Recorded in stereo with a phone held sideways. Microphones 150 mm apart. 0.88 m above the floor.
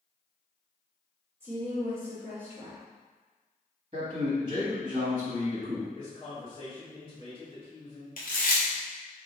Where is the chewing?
70° left (ahead or behind), 1.0 m.